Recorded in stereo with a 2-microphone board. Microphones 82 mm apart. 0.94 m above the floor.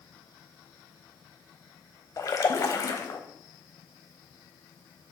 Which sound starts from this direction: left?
A splash, at 2.2 s.